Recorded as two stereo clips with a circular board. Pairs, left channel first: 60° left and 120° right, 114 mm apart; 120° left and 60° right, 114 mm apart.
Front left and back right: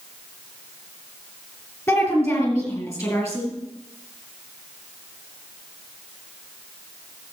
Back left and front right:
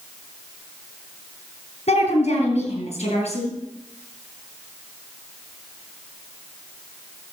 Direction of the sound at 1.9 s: 125° left.